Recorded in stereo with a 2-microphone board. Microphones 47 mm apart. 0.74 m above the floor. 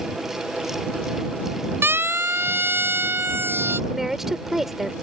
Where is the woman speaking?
5° right (ahead or behind).